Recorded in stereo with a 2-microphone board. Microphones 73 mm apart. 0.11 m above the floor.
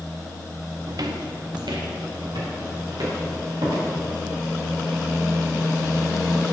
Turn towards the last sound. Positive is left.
turn(degrees=-80)